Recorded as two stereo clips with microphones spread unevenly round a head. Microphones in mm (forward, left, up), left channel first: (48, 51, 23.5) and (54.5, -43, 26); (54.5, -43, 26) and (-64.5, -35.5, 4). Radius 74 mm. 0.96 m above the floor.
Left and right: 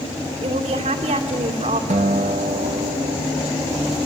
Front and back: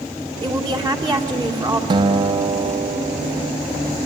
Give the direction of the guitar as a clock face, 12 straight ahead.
4 o'clock.